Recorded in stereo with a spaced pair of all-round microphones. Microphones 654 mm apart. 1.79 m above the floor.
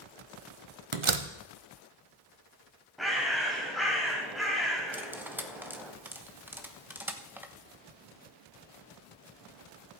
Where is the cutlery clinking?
5° right (ahead or behind), 0.9 m.